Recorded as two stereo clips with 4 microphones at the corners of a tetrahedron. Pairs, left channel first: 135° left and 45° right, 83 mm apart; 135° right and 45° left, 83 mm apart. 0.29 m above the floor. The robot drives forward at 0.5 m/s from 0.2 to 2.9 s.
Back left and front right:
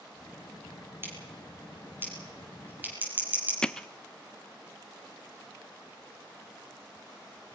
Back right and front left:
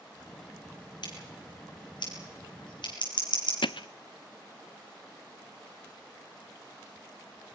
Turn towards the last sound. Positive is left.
turn(degrees=-145)